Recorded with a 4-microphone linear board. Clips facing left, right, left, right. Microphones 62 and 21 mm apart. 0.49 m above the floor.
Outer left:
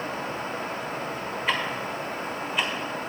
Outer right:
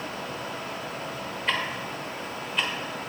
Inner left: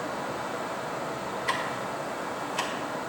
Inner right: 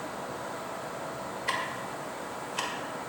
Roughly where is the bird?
No bird in this recording.